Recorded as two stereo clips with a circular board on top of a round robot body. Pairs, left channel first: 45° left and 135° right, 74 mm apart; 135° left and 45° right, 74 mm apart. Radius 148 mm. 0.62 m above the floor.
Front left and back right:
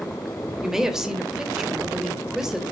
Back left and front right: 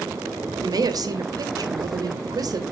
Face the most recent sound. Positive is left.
turn(degrees=-50)